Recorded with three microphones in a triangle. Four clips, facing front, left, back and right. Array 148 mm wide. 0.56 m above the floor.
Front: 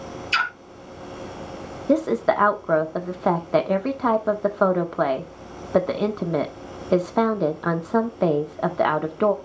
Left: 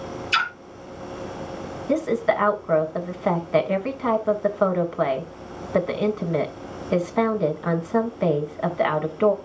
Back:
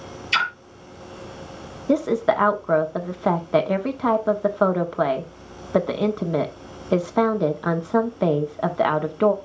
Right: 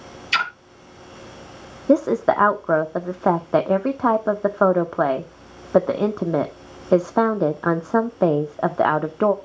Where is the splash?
120° right, 2.5 m.